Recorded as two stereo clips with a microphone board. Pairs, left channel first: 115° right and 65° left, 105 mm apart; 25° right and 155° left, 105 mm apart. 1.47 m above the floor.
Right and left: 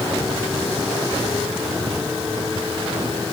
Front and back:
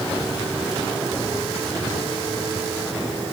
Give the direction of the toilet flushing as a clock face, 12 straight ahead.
I don't hear a toilet flushing.